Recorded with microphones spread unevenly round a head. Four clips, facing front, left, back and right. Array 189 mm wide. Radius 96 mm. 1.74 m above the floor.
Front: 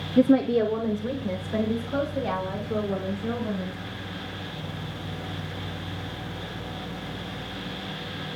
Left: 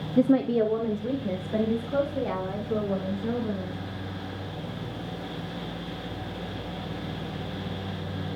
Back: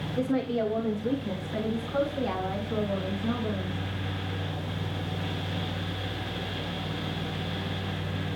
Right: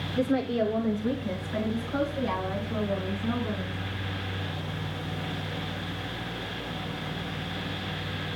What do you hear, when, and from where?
0.2 s a woman speaking: 10° left, 0.6 m; by 3.8 s 50° left, 6 m